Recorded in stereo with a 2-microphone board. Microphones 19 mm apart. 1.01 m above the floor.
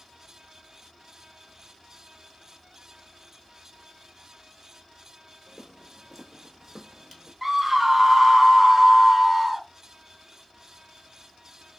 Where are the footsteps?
25° right (ahead or behind), 1.3 m; by 7.3 s 10° left (ahead or behind), 1.1 m.